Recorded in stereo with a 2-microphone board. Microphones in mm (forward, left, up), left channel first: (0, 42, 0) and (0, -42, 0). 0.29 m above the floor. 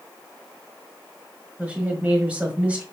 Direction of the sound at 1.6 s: 15° right (ahead or behind).